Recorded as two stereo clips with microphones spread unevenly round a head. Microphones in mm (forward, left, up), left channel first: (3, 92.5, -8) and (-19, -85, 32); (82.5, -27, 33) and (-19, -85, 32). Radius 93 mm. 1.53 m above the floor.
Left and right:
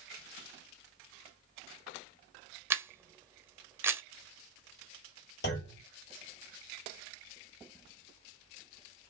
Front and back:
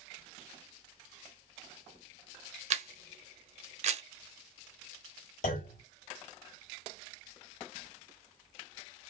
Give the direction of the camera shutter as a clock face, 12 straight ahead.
6 o'clock.